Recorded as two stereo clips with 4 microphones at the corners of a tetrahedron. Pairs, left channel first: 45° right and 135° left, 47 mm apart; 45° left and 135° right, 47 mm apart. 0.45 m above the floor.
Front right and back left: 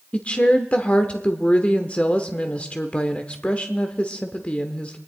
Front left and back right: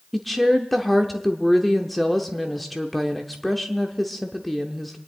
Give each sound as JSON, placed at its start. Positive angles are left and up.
{"t": 0.1, "sound": "a woman speaking", "azimuth_deg": -40, "distance_m": 0.8}